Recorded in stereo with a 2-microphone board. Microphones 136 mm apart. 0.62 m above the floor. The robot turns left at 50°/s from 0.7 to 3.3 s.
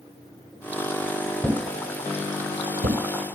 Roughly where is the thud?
Centre.